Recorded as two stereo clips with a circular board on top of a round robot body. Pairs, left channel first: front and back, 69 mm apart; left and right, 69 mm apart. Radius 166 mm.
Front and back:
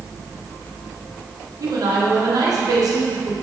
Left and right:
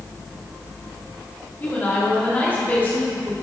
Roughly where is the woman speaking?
Behind left.